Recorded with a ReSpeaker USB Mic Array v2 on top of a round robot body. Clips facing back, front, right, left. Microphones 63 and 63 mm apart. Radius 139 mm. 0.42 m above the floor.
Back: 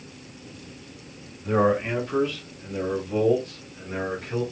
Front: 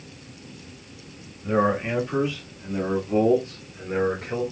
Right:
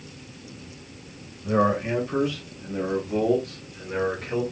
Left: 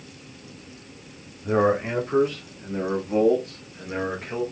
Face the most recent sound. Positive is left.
turn(degrees=20)